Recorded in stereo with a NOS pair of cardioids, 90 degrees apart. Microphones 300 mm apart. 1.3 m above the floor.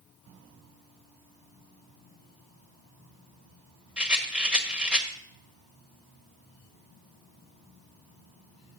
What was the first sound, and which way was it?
A rattle, 5° right.